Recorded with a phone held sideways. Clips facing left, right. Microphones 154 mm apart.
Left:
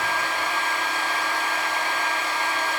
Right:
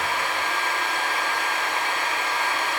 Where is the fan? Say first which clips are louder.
Even; 65° right (ahead or behind), 1.6 m.